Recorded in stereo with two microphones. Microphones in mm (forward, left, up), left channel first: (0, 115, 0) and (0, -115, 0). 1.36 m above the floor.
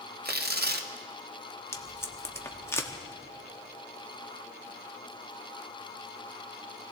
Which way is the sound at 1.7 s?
10° left (ahead or behind).